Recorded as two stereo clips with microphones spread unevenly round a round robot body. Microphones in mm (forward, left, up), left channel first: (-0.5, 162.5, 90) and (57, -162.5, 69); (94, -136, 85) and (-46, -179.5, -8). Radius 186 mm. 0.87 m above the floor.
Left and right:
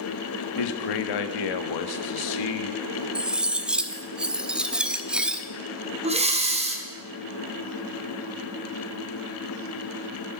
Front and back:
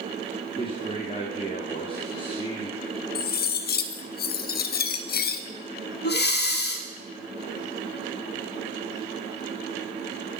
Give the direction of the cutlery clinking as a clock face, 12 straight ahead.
12 o'clock.